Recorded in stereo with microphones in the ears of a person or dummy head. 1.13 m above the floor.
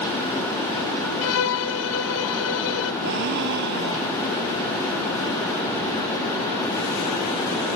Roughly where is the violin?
Left.